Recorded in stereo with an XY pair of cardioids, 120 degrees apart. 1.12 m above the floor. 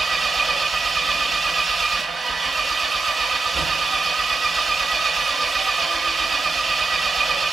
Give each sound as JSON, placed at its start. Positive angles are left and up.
{"t": 0.0, "sound": "an engine running", "azimuth_deg": -35, "distance_m": 0.8}